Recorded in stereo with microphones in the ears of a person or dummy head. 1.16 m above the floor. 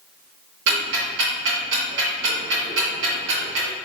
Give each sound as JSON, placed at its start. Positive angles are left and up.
{"t": 0.7, "sound": "ticking", "side_deg": -65, "distance_m": 1.8}